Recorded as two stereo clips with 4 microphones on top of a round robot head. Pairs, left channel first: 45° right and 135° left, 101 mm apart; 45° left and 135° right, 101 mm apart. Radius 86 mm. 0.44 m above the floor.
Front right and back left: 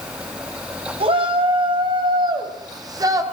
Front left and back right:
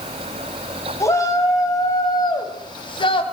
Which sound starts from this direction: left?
A shout, at 1.0 s.